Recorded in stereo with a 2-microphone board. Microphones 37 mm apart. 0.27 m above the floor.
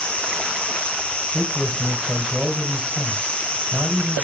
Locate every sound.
0.0 s an insect: 35° left (ahead or behind), 1.3 m
1.3 s a man speaking: 30° right (ahead or behind), 1.8 m